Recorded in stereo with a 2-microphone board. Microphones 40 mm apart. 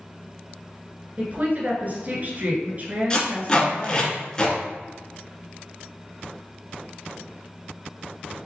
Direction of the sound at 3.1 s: 20° left (ahead or behind).